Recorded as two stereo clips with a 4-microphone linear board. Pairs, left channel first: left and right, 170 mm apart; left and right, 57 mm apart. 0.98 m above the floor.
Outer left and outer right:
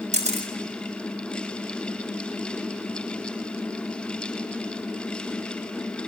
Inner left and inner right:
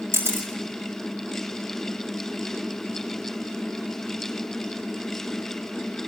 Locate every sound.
0.1 s a camera shutter: 45° right (ahead or behind), 6 m